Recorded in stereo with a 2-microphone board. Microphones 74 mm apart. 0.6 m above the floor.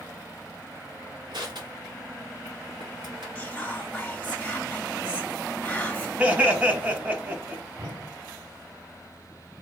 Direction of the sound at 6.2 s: 20° right (ahead or behind).